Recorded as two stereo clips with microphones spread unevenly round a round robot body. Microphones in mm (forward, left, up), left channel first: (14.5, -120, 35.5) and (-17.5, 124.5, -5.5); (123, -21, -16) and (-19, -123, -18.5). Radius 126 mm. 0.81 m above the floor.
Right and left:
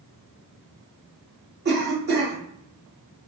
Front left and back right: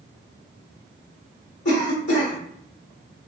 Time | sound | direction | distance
1.6 | a cough | 55° left | 0.9 m